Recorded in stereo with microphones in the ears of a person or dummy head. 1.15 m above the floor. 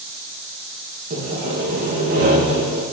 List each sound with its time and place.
1.1 s sawing: 40° right (ahead or behind), 1.5 m